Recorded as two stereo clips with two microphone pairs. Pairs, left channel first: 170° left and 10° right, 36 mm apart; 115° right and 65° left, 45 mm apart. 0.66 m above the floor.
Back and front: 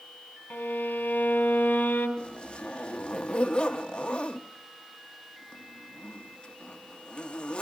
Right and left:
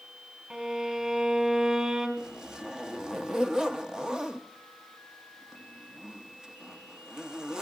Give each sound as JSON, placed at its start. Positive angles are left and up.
{"t": 0.5, "sound": "a violin", "azimuth_deg": 135, "distance_m": 4.5}
{"t": 2.2, "sound": "a zipper", "azimuth_deg": 125, "distance_m": 0.9}